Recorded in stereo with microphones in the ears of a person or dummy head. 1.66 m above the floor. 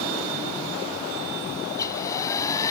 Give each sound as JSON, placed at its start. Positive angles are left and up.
{"t": 1.7, "sound": "a hair dryer", "side_deg": 25}